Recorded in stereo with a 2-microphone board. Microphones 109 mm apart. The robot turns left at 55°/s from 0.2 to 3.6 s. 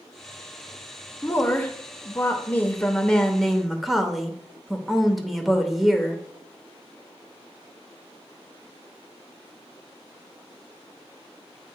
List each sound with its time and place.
1.2 s a woman speaking: 15° left (ahead or behind), 0.9 m; by 6.2 s centre (ahead or behind), 0.9 m